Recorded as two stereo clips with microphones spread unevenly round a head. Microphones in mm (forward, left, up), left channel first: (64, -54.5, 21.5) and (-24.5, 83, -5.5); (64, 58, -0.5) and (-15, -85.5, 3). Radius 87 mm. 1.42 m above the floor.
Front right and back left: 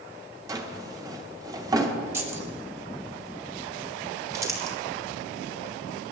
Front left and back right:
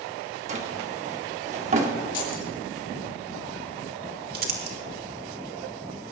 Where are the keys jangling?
50° left, 3.5 m.